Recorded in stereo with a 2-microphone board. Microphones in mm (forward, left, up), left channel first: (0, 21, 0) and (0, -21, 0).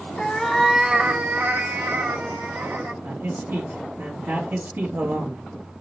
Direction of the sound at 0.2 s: 20° left (ahead or behind).